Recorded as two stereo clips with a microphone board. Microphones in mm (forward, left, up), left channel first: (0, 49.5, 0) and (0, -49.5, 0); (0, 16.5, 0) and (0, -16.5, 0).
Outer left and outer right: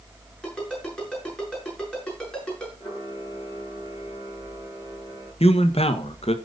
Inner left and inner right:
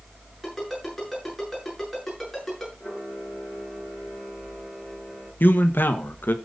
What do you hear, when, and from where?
0.4 s a ringtone: 10° left (ahead or behind), 7.5 m
2.8 s a camera shutter: 35° left (ahead or behind), 7.5 m
5.4 s a man speaking: 75° left (ahead or behind), 1.3 m